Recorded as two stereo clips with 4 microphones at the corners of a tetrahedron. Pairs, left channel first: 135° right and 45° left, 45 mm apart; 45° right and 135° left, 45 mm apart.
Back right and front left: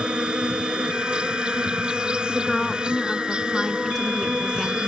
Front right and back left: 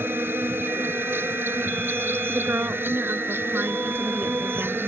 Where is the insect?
110° left.